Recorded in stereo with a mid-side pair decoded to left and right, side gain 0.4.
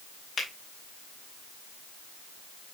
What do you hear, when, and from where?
0.4 s a finger snap: 50° left, 4 m